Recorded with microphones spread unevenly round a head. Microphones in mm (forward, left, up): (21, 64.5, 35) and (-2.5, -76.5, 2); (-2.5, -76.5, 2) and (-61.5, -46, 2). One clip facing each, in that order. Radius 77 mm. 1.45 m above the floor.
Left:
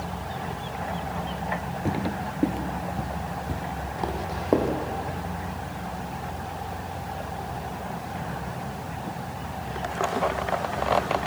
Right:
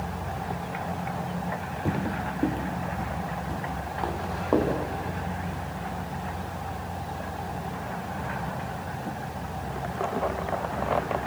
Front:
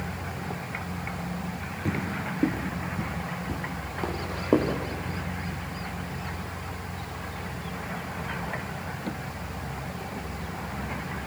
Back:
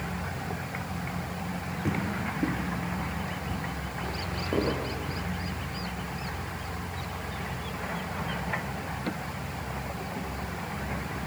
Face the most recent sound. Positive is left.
turn(degrees=15)